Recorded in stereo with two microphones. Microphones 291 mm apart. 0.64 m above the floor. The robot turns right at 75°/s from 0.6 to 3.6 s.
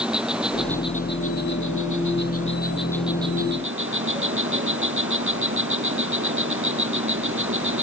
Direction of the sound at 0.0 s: 5° right.